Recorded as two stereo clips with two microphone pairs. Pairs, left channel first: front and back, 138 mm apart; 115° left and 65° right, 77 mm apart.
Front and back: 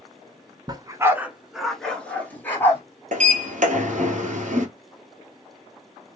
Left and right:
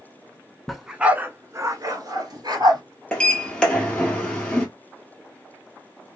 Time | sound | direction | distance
0.7 | a dog barking | 160° right | 0.6 m
3.1 | a sliding door | 170° right | 1.0 m